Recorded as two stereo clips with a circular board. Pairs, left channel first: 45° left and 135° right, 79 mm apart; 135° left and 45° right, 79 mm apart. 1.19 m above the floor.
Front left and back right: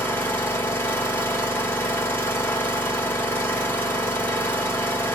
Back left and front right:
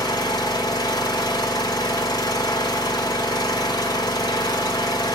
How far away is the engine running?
About 3.5 m.